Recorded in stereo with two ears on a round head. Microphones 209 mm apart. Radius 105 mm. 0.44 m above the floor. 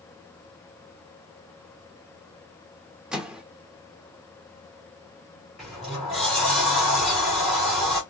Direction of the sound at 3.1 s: 5° right (ahead or behind).